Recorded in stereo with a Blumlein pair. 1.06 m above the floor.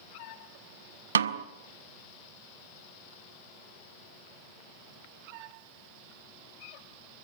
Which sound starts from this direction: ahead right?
A snare drum, at 1.1 s.